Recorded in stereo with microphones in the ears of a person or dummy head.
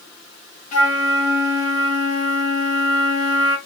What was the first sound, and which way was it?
A flute, 40° left (ahead or behind).